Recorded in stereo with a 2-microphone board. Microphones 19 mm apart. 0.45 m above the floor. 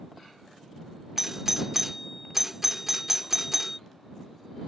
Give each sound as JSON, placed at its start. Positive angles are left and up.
{"t": 1.2, "sound": "a doorbell", "side_deg": -15}